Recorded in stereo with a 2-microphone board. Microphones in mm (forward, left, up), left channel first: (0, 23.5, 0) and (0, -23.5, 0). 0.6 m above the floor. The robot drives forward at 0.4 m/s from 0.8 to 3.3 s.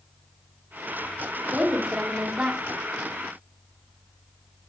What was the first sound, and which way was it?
A woman speaking, 20° right (ahead or behind).